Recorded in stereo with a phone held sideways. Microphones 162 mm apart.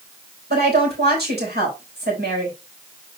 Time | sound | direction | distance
0.5 | a woman speaking | 85° right | 4 m